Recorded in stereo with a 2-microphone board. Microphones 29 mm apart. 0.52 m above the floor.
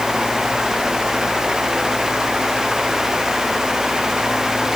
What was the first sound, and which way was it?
Only background noise.